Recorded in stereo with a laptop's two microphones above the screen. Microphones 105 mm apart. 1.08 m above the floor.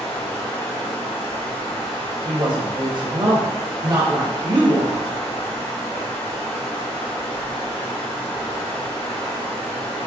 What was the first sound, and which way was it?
Running water, 70° left (ahead or behind).